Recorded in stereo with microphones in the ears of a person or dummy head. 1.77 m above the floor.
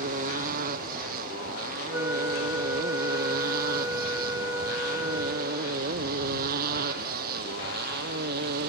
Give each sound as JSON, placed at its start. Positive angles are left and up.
{"t": 0.0, "sound": "a motorcycle", "side_deg": -45}
{"t": 1.9, "sound": "a flute", "side_deg": -15}